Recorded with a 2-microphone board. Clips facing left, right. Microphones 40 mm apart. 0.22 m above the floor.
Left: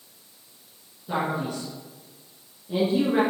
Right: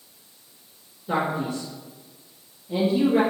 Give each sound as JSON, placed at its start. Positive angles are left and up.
{"t": 1.1, "sound": "a man speaking", "side_deg": -20, "distance_m": 2.5}